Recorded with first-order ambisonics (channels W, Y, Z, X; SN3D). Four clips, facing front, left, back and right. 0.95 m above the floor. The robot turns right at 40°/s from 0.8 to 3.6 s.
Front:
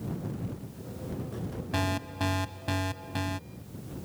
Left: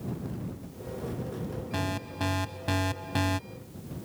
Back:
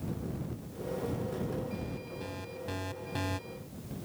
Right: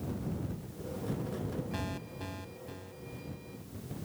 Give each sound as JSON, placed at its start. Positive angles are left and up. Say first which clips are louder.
{"t": 1.7, "sound": "an alarm", "louder": "left 7 dB, front 8 dB", "azimuth_deg": 20}